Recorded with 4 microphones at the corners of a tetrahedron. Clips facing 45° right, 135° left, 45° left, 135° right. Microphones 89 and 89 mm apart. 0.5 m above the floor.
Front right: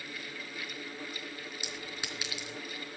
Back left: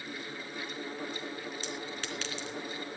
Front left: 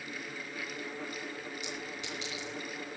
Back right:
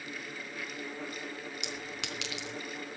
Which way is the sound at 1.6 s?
125° right.